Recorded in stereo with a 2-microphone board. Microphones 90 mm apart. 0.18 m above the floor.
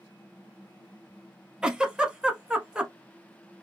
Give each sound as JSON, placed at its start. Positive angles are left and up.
{"t": 1.6, "sound": "a giggle", "side_deg": -10, "distance_m": 0.7}